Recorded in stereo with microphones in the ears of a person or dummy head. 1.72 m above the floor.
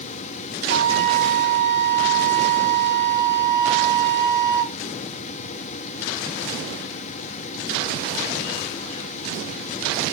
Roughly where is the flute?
Left.